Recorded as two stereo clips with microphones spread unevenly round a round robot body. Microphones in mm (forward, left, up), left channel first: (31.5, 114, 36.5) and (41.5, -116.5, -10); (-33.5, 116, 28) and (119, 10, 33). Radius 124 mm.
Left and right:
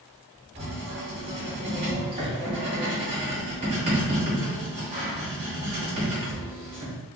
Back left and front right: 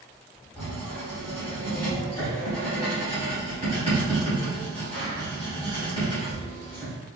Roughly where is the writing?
Behind right.